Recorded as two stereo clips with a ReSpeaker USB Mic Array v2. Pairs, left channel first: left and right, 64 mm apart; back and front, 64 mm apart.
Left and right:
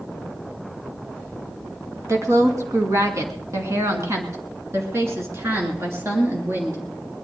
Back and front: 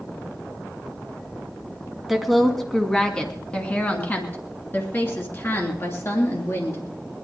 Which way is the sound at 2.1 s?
85° right.